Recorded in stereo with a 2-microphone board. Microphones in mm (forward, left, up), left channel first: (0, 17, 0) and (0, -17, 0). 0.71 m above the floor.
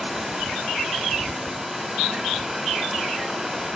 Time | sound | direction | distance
0.0 | running water | 5° right (ahead or behind) | 2.5 m